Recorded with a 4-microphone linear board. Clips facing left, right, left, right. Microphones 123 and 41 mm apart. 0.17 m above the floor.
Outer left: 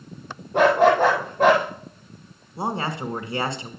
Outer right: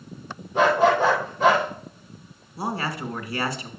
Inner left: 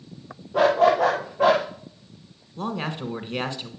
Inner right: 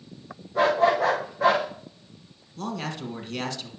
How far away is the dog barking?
About 7 m.